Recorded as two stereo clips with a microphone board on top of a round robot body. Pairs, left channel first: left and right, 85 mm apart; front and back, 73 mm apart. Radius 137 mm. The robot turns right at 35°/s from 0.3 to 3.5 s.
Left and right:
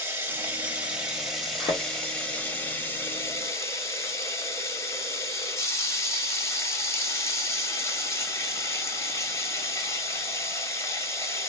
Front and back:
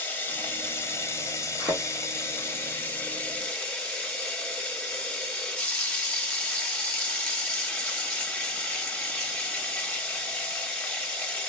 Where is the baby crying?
I don't hear a baby crying.